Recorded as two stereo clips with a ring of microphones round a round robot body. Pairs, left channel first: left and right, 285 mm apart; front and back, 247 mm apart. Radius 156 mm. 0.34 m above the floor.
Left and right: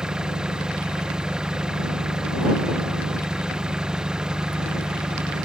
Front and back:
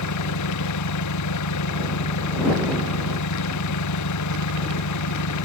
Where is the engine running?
5° right.